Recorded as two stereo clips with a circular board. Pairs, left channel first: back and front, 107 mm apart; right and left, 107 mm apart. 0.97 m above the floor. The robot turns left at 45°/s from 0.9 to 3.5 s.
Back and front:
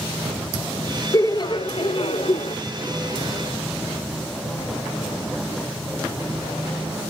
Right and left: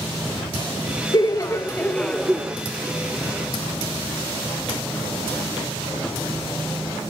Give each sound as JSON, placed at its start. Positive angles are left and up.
{"t": 1.1, "sound": "laughter", "azimuth_deg": -130, "distance_m": 0.8}